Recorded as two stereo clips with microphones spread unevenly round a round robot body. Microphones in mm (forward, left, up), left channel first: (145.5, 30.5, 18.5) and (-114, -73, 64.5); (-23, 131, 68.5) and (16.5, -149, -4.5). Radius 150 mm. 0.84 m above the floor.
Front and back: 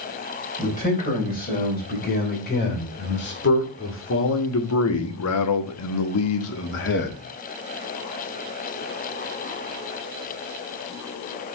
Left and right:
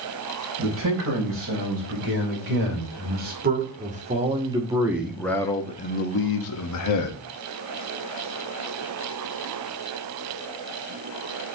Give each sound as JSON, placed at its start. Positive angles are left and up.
{"t": 0.6, "sound": "a man speaking", "azimuth_deg": -40, "distance_m": 4.5}